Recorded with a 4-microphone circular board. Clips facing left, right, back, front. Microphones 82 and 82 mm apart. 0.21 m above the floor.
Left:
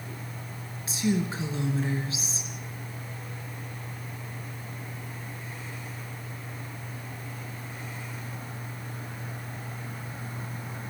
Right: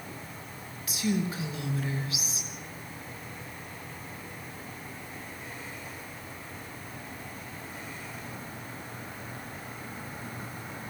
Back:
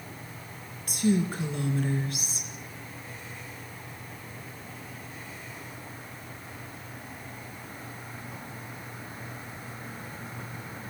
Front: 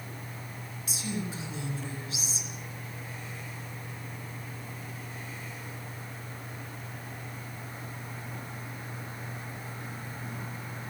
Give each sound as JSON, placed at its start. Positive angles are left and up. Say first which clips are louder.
{"t": 0.9, "sound": "a woman speaking", "louder": "left 2 dB, back 10 dB", "azimuth_deg": 150, "distance_m": 3.0}